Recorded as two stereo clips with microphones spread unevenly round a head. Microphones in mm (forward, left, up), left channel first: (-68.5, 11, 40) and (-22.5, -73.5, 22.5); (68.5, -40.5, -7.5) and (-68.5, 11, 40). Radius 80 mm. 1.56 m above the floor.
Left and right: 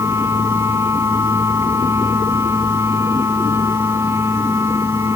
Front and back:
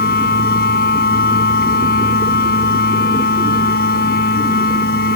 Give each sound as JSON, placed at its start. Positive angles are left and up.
{"t": 0.0, "sound": "a machine running", "azimuth_deg": 20}